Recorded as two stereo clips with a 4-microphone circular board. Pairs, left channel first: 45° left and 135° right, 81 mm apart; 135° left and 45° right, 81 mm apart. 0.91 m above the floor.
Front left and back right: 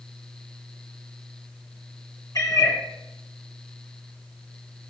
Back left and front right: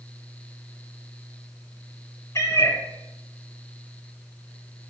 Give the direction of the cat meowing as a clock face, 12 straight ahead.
9 o'clock.